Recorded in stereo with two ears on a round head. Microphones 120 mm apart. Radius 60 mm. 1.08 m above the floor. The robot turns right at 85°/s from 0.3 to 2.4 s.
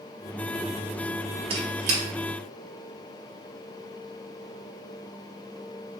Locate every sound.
1.5 s a squeak: 40° right (ahead or behind), 1.0 m; by 2.0 s 60° right (ahead or behind), 1.0 m